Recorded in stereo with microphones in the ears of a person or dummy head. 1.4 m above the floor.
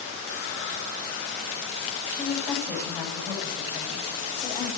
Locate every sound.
2.1 s a woman speaking: 20° left (ahead or behind), 8.5 m